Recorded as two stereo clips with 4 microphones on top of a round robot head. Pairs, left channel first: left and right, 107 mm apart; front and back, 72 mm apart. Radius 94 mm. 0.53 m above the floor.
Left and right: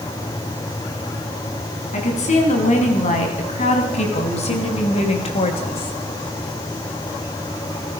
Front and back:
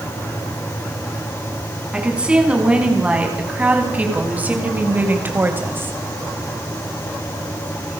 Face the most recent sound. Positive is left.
turn(degrees=125)